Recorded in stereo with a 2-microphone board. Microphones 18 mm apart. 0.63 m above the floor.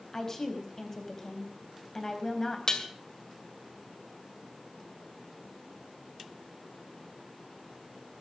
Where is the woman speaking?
25° left (ahead or behind), 3.5 m.